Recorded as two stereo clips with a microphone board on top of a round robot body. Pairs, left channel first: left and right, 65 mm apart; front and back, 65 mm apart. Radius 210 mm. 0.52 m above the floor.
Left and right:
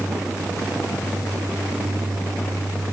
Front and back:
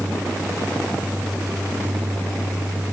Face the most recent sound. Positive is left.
No sound to turn to.